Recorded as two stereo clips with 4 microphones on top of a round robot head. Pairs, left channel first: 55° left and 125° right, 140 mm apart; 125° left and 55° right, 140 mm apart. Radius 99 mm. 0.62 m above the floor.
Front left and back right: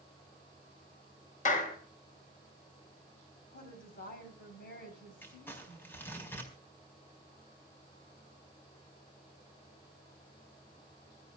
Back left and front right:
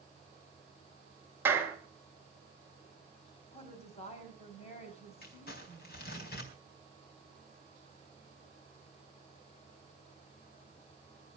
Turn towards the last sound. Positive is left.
turn(degrees=130)